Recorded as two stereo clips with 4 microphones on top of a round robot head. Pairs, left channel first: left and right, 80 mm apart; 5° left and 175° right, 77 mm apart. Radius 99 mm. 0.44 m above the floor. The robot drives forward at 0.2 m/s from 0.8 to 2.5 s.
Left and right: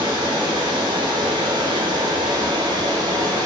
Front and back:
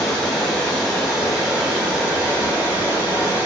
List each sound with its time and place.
0.0 s running water: 80° right, 0.8 m; by 3.5 s 105° right, 0.9 m